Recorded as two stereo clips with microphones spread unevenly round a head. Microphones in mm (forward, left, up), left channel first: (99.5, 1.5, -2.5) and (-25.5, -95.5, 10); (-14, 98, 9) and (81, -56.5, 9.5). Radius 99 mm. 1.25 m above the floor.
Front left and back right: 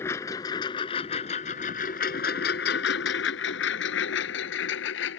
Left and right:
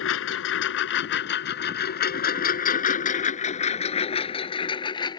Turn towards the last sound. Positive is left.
turn(degrees=55)